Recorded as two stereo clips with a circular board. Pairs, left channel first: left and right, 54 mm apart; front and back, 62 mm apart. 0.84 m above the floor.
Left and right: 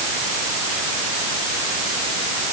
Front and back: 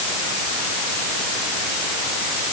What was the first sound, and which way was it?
Only background noise.